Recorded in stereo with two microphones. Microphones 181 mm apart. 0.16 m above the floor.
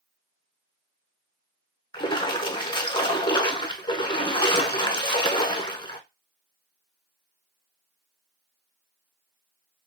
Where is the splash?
25° left (ahead or behind), 0.6 m.